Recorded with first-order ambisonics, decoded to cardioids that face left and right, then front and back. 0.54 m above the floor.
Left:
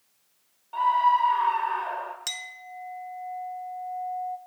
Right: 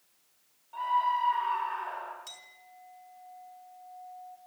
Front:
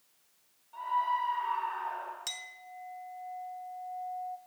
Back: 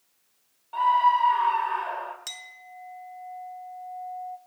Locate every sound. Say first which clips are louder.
0.7 s a scream: left 7 dB, back 10 dB; 145° left, 2.0 m
2.3 s a clink: left 13 dB, back 1 dB; 95° left, 0.8 m